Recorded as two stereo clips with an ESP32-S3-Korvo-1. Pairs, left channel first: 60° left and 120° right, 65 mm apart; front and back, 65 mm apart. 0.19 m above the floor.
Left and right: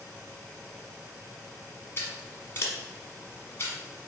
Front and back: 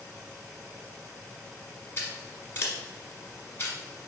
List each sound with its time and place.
2.0 s scissors: 30° left, 1.1 m